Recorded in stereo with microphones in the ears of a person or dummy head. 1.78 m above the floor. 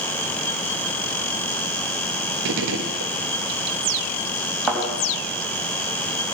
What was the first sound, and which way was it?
A gunshot, 70° right (ahead or behind).